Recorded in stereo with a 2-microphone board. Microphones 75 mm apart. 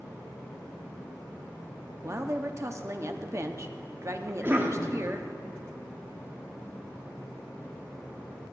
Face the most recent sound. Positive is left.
turn(degrees=-30)  # may be behind; listen again after turning